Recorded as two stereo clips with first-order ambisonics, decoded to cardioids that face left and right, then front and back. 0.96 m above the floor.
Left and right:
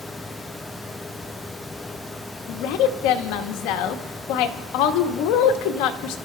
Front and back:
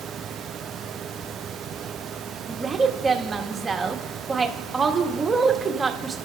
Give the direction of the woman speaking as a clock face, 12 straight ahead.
9 o'clock.